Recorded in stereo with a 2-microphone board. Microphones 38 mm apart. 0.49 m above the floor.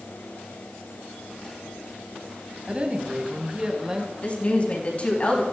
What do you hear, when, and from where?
2.7 s a woman speaking: 35° right (ahead or behind), 3.5 m; by 4.1 s 20° right (ahead or behind), 4 m
4.2 s a woman speaking: 35° left (ahead or behind), 4 m